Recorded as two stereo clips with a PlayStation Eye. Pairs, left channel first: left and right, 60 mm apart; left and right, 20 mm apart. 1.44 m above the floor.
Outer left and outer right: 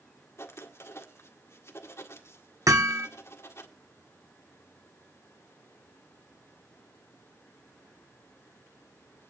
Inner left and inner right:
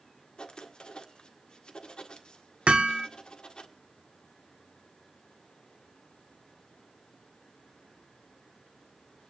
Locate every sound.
0.4 s writing: 50° left (ahead or behind), 1.8 m
2.7 s hammering: 70° right (ahead or behind), 2.0 m